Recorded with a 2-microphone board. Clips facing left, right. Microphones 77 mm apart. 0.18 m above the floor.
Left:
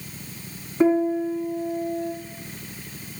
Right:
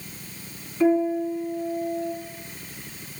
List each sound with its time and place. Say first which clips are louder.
0.8 s a piano: left 1 dB; 40° left (ahead or behind), 0.6 m